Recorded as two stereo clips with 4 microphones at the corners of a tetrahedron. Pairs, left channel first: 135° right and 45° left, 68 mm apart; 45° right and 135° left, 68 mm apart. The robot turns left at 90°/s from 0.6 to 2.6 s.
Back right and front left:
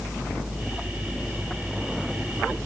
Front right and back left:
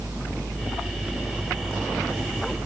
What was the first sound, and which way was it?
Only background noise.